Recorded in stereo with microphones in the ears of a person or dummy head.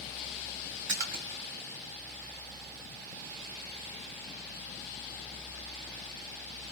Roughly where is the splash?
Right.